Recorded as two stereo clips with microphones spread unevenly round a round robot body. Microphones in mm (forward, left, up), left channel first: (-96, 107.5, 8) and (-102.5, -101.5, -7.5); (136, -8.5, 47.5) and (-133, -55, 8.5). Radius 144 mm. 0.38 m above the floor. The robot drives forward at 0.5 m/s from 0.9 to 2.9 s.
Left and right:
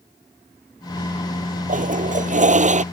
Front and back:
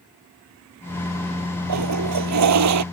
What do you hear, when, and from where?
1.7 s a toilet flushing: 145° right